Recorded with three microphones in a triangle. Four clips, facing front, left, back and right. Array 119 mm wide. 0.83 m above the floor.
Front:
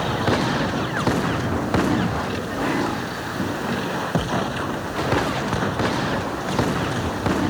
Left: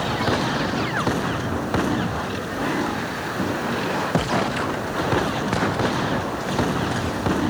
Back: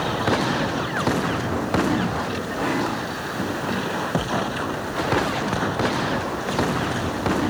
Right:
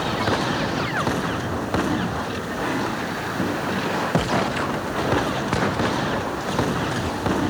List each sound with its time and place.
Only background noise.